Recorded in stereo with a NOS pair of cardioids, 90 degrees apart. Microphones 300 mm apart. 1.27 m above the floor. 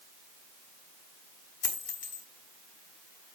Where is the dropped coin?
25° left, 2.5 m.